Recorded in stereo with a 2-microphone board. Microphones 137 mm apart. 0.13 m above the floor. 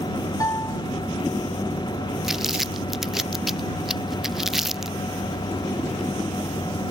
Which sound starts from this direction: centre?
Crumpling, at 2.2 s.